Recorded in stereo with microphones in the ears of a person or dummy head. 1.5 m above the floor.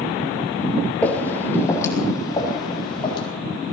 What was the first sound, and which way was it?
Footsteps, 15° left (ahead or behind).